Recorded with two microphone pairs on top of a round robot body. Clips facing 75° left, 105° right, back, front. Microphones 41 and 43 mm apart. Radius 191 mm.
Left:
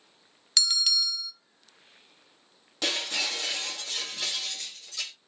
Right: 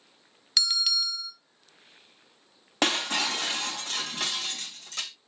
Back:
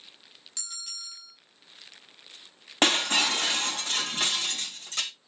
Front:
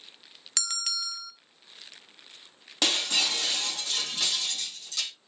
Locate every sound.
0.6 s a bell: 20° right, 1.2 m
2.8 s breaking glass: 135° right, 3.5 m